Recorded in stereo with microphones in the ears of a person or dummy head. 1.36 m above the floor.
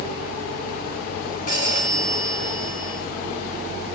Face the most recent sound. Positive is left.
turn(degrees=50)  # may be behind; listen again after turning